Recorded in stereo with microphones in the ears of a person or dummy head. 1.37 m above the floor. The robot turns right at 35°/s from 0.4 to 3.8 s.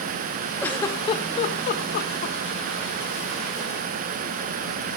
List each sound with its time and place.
0.6 s a giggle: 10° left (ahead or behind), 1.6 m; by 2.4 s 55° left (ahead or behind), 1.6 m